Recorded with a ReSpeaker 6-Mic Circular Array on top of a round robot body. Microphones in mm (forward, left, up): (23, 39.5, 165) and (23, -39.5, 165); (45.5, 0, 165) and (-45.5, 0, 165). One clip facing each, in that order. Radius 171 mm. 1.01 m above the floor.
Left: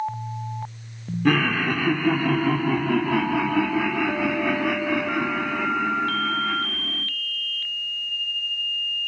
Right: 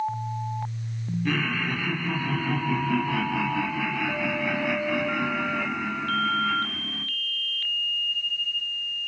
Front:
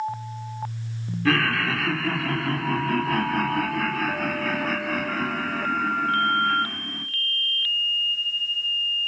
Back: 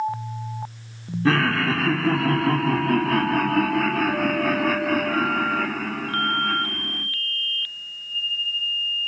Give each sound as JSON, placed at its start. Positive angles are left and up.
{"t": 1.2, "sound": "laughter", "azimuth_deg": 120, "distance_m": 1.7}